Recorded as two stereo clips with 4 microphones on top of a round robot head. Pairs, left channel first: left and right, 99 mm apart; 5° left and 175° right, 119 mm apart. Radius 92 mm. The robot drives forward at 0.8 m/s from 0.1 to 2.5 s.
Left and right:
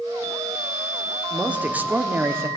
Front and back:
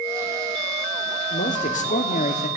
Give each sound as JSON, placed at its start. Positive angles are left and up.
{"t": 1.3, "sound": "a man speaking", "azimuth_deg": -15, "distance_m": 2.0}